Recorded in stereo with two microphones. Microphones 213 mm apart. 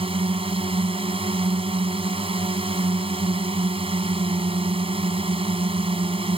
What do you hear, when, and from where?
0.0 s a drone: 25° right (ahead or behind)